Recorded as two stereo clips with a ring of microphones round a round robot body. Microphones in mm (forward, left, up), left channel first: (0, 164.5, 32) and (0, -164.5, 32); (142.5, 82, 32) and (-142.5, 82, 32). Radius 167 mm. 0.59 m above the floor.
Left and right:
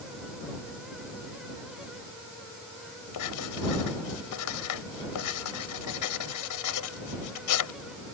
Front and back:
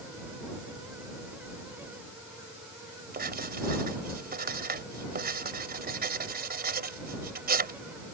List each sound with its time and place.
3.1 s writing: 125° left